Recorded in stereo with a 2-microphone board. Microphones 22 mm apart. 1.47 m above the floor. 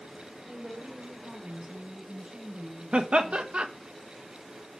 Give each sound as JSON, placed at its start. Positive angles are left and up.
{"t": 0.5, "sound": "a woman speaking", "side_deg": -55, "distance_m": 6.0}
{"t": 2.9, "sound": "laughter", "side_deg": -60, "distance_m": 1.4}